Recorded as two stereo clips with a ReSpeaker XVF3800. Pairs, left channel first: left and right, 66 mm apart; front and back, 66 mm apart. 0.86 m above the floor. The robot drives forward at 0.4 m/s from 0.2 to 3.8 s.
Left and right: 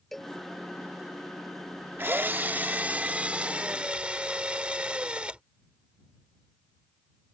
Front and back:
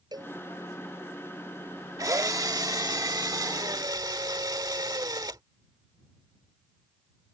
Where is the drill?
145° right; by 5.4 s 160° right.